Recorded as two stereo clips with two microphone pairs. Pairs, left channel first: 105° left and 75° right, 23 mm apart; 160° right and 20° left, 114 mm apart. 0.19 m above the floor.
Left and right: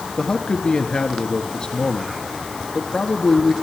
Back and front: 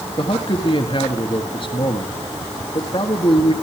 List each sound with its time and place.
0.2 s a man speaking: 160° left, 2.5 m